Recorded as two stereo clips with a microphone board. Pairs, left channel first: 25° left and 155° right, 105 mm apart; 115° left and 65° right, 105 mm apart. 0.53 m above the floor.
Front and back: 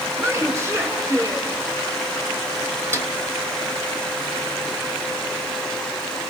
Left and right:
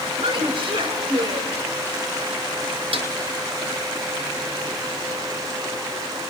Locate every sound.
0.2 s a woman speaking: 95° right, 2.5 m
2.9 s a snare drum: 95° right, 1.9 m